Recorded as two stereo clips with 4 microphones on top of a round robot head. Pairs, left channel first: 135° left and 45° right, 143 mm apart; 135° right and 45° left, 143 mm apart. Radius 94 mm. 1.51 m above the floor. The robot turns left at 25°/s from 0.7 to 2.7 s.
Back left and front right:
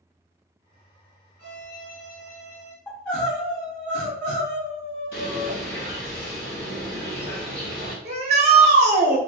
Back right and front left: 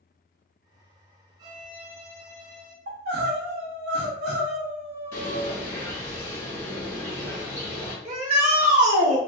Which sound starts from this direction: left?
A violin, at 1.4 s.